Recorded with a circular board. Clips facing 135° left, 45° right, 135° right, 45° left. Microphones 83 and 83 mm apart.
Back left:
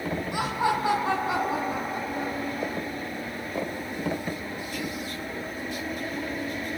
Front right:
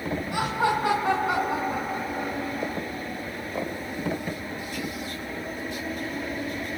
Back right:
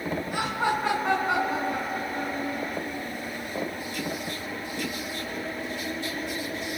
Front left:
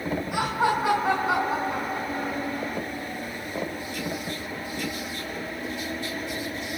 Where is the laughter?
35° right, 4 m.